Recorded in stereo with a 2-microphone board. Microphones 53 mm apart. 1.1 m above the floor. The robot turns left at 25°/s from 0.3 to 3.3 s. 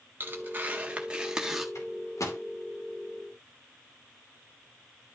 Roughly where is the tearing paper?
Behind right.